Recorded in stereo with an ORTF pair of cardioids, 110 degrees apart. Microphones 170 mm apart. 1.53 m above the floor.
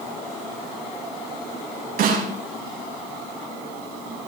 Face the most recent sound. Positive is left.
turn(degrees=-65)